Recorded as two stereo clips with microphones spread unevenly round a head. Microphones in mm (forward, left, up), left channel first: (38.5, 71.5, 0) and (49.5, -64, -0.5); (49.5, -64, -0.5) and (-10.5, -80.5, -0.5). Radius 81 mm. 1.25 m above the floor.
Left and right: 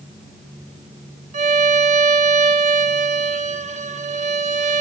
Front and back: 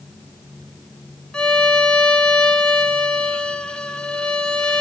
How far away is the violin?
About 2.5 m.